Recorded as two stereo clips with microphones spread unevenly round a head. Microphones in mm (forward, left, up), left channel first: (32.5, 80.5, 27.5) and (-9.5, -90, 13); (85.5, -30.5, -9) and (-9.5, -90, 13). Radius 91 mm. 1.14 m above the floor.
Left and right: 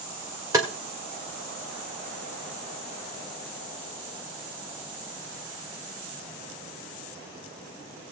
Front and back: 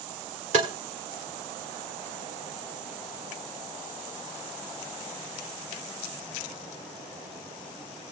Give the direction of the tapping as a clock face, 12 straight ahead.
6 o'clock.